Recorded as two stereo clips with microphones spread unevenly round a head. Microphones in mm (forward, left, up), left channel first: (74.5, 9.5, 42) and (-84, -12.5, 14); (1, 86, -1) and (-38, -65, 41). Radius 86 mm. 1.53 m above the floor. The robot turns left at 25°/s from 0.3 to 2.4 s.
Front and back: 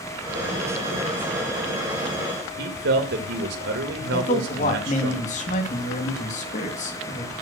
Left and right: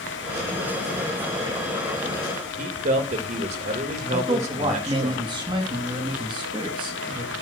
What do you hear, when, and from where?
2.6 s a man speaking: 150° right, 2 m
4.1 s a man speaking: 40° right, 3 m